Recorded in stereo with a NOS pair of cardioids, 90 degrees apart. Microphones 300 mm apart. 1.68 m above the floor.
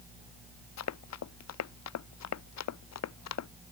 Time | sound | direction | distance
0.8 | running footsteps | 60° left | ?